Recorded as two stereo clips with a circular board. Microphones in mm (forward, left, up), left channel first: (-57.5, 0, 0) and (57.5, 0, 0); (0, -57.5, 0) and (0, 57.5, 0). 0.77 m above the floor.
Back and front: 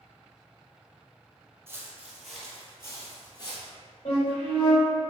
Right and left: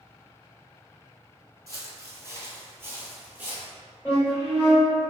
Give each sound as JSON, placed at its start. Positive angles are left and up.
{"t": 1.7, "sound": "footsteps", "azimuth_deg": 50, "distance_m": 0.9}
{"t": 4.0, "sound": "a flute", "azimuth_deg": -170, "distance_m": 1.8}